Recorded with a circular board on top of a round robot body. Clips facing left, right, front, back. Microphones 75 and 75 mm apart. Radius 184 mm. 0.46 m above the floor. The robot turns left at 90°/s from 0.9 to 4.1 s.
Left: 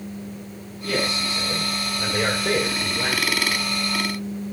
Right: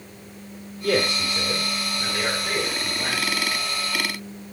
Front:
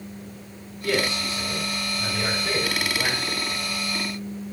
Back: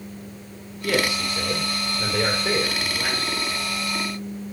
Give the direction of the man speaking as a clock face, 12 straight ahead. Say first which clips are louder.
Right 3 dB, back 2 dB; 3 o'clock.